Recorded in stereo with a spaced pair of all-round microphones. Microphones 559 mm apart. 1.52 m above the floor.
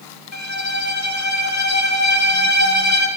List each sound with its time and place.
0.3 s a violin: 30° left (ahead or behind), 0.7 m